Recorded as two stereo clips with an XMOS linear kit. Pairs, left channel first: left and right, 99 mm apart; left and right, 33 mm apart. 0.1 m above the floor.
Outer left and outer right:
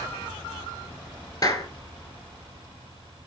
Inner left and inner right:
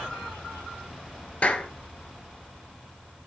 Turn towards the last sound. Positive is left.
turn(degrees=40)  # may be behind; listen again after turning